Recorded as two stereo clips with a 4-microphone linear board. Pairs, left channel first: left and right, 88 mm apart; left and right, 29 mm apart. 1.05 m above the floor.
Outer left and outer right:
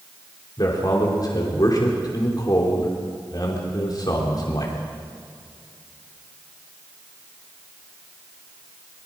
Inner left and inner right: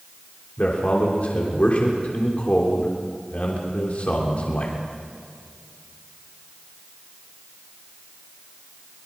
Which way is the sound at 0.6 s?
50° left (ahead or behind).